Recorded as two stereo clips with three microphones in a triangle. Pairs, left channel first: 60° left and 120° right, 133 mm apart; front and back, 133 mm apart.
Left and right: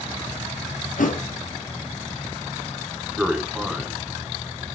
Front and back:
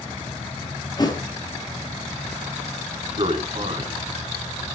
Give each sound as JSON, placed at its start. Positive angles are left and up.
{"t": 1.0, "sound": "a thud", "azimuth_deg": 60, "distance_m": 1.8}
{"t": 3.2, "sound": "a man speaking", "azimuth_deg": 155, "distance_m": 2.5}